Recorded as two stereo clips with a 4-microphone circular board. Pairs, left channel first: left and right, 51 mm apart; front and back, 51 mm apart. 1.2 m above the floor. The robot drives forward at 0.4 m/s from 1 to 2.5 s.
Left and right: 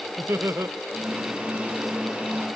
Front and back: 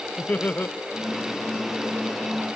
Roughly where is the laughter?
Ahead right.